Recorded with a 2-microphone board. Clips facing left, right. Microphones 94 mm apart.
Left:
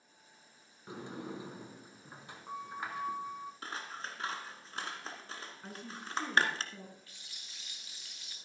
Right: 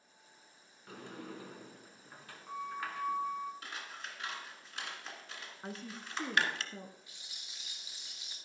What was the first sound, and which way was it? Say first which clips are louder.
A sliding door: left 4 dB; 20° left (ahead or behind).